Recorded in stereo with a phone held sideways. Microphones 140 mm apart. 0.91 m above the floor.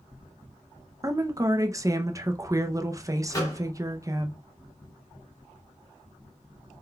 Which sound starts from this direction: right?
A woman speaking, at 1.0 s.